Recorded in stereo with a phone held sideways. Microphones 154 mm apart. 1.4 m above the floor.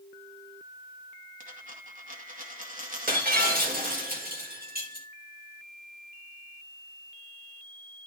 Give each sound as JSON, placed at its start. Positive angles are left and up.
{"t": 1.4, "sound": "a dropped coin", "side_deg": -60, "distance_m": 2.5}
{"t": 3.1, "sound": "breaking glass", "side_deg": -75, "distance_m": 3.0}